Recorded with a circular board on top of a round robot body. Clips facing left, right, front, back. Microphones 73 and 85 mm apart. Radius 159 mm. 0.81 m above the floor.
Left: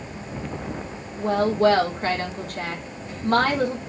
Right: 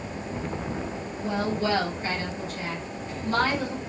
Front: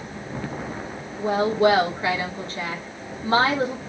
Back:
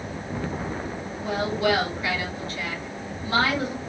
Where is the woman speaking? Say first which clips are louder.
Left 8 dB, front 6 dB; 55° left, 3.5 m.